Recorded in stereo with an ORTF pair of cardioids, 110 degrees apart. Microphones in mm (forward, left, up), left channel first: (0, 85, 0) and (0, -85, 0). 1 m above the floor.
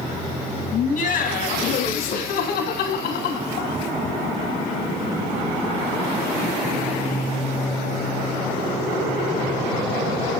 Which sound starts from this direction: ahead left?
Laughter, at 0.7 s.